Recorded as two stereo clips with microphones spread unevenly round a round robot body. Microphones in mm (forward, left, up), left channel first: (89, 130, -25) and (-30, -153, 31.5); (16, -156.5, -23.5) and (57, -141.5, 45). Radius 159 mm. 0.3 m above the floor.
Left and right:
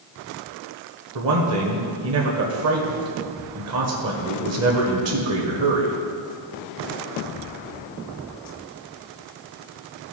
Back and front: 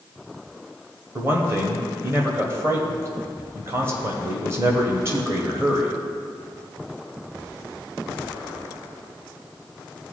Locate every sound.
1.1 s a man speaking: 110° right, 1.3 m